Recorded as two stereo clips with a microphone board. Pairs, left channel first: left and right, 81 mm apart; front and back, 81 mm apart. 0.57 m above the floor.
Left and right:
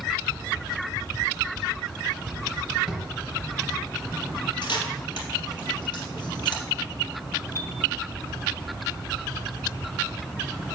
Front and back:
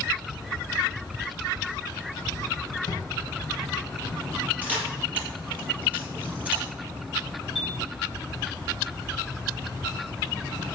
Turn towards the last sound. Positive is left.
turn(degrees=95)